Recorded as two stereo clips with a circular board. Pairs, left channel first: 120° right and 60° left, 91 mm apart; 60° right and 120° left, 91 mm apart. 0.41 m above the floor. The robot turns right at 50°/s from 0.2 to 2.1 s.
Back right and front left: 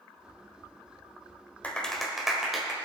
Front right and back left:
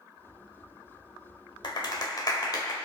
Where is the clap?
50° right, 1.3 m; by 2.7 s 25° right, 1.3 m.